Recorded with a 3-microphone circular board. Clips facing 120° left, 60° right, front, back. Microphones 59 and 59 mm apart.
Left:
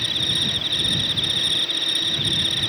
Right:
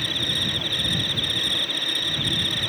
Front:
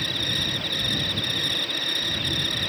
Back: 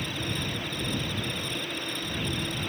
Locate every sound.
0.0 s an insect: 20° left